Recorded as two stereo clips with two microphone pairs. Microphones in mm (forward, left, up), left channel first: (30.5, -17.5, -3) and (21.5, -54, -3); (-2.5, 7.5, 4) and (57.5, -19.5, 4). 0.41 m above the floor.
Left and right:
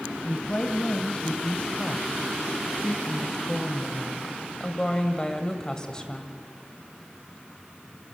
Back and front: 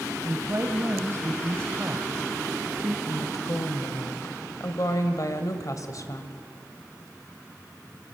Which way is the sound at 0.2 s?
20° left.